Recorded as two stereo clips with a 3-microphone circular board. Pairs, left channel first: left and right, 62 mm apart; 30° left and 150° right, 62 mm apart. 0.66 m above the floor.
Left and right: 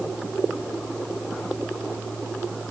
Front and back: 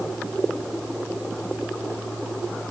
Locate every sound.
Only background noise.